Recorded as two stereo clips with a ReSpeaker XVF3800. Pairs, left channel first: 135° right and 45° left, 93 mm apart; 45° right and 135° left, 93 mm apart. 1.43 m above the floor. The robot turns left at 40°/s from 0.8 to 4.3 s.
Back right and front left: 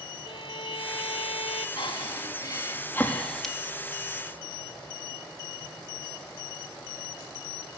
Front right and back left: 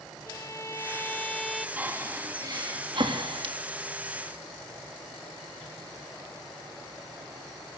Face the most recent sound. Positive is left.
turn(degrees=105)